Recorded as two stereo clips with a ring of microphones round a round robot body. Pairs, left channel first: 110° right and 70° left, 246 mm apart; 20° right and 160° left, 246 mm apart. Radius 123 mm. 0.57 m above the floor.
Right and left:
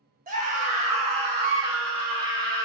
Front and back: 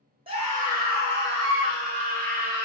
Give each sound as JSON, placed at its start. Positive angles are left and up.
{"t": 0.3, "sound": "a scream", "azimuth_deg": 105, "distance_m": 1.0}